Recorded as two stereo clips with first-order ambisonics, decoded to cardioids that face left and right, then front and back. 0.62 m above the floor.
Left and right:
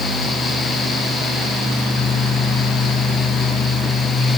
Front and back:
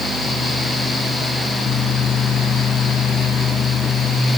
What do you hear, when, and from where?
Only background noise.